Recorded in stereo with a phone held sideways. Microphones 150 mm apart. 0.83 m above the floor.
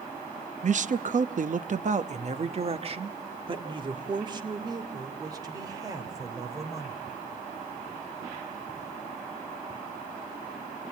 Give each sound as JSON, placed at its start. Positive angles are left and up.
{"t": 0.6, "sound": "a man speaking", "side_deg": -50, "distance_m": 0.8}